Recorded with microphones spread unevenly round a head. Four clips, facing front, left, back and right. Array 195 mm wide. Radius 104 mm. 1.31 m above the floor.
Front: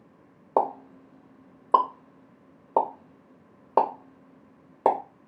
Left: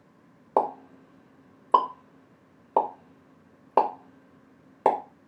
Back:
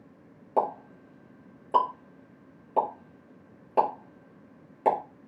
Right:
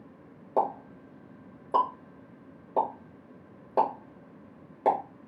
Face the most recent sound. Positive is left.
turn(degrees=35)